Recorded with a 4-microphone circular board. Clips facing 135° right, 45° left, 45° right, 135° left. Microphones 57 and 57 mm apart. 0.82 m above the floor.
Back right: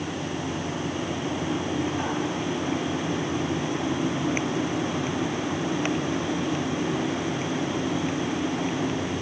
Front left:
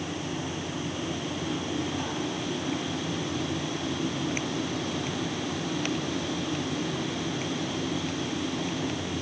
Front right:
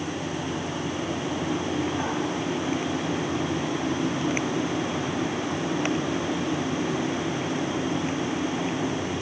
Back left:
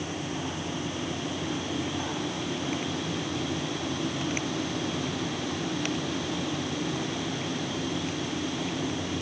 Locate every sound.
Only background noise.